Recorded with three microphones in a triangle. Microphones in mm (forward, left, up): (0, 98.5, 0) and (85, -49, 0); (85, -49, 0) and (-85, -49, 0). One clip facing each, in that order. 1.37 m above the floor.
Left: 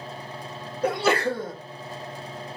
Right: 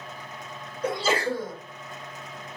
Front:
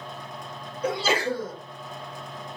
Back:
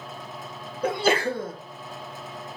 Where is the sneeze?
145° left, 1.1 m.